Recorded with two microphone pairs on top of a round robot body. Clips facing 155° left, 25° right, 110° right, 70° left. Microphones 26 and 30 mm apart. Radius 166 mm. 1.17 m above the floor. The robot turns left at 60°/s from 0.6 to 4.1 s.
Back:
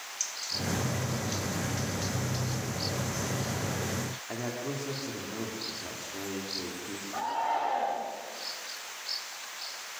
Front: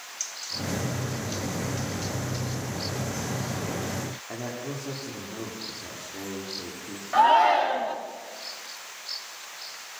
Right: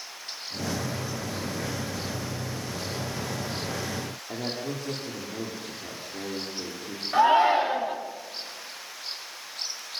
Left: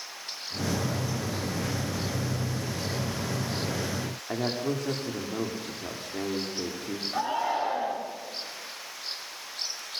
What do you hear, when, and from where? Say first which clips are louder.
4.3 s a man speaking: back 1 dB, left 4 dB; 70° left, 4 m
7.1 s a shout: front 12 dB, right 10 dB; 55° right, 2.5 m